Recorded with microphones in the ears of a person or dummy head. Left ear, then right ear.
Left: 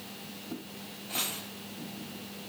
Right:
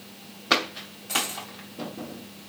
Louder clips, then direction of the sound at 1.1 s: Right 7 dB; 50° right (ahead or behind).